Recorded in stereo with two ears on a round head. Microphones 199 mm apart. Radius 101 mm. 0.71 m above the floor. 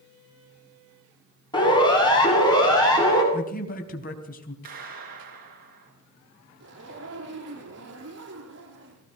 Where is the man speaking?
40° left (ahead or behind), 4.5 m.